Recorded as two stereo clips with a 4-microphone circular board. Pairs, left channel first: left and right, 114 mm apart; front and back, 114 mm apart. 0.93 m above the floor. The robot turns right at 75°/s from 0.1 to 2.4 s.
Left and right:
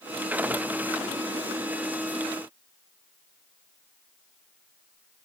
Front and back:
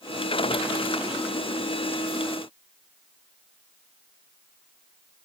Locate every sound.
Only background noise.